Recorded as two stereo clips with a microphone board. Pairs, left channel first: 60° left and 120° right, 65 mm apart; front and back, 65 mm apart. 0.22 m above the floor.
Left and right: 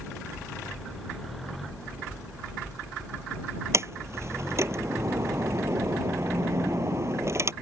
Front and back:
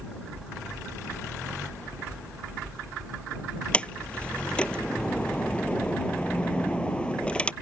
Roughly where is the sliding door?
Right.